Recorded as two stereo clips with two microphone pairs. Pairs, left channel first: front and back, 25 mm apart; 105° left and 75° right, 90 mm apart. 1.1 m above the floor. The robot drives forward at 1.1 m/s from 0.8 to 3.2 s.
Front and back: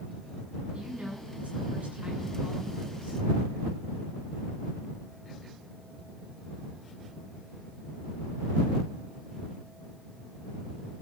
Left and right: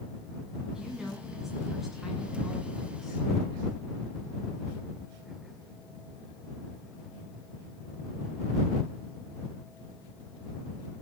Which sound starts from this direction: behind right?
A woman speaking, at 0.7 s.